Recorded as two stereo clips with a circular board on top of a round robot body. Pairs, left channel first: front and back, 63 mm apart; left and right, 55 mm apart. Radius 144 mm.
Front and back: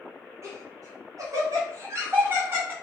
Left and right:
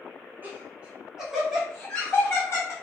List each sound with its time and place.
0.4 s laughter: 145° right, 1.4 m; by 2.7 s 120° left, 1.2 m